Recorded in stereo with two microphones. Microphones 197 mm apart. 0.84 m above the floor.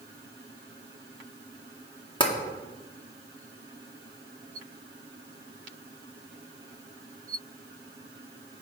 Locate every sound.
2.2 s tapping: 25° left (ahead or behind), 1.8 m